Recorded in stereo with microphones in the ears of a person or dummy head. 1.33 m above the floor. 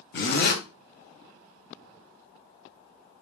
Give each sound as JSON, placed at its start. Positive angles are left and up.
{"t": 0.1, "sound": "a zipper", "side_deg": 55, "distance_m": 0.9}